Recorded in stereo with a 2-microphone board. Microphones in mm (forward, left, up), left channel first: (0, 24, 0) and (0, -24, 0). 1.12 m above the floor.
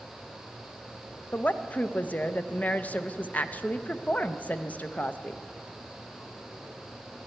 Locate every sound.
1.3 s a woman speaking: 35° left (ahead or behind), 0.5 m